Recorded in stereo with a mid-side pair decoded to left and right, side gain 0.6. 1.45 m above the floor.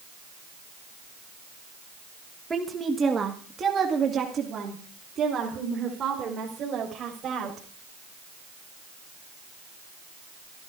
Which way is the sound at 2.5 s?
20° right.